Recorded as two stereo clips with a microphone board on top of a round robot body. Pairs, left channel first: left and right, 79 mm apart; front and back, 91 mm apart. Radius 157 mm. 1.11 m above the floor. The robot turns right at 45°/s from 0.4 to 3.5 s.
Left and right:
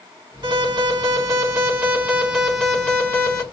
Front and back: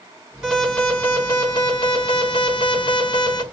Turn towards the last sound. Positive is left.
turn(degrees=40)